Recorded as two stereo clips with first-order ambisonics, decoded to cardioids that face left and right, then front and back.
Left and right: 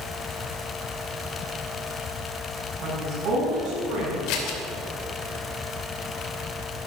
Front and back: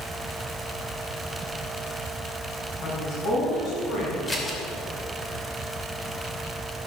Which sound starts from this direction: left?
Scissors, at 4.3 s.